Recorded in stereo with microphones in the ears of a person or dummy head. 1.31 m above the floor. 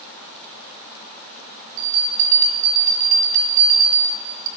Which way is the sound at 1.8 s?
45° right (ahead or behind).